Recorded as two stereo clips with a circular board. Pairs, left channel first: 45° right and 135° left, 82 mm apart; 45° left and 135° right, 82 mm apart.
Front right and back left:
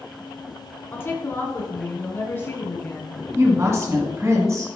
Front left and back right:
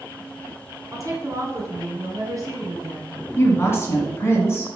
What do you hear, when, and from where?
0.9 s a woman speaking: 100° right, 2.5 m
3.4 s a woman speaking: 90° left, 2.5 m